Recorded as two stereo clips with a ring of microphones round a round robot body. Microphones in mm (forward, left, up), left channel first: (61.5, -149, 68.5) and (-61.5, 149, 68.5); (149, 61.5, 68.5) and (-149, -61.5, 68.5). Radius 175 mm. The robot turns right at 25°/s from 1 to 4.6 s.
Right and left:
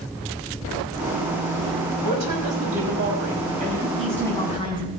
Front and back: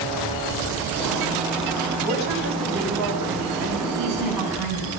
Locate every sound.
2.0 s a woman speaking: 140° left, 5.5 m; by 3.9 s 175° right, 5.5 m
4.0 s a woman speaking: 160° right, 6.5 m; by 4.9 s 145° right, 6.5 m